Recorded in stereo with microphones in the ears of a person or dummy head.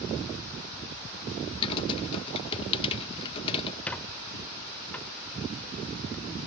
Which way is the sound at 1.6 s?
40° left (ahead or behind).